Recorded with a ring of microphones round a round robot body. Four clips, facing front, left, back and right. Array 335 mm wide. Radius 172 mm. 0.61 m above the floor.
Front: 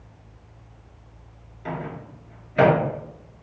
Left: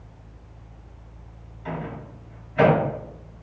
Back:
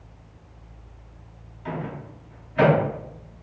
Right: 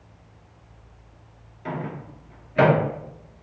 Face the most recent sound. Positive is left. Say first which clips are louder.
# right 1 dB, even
turn(degrees=-45)